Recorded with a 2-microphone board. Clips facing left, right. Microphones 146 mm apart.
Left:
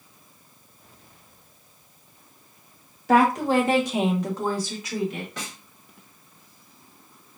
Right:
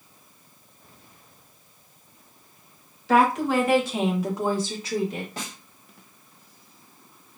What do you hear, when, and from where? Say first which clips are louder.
3.1 s a woman speaking: left 1 dB; 45° left (ahead or behind), 1.0 m; by 5.3 s 45° right (ahead or behind), 1.0 m
5.4 s a snare drum: right 1 dB; 30° right (ahead or behind), 1.5 m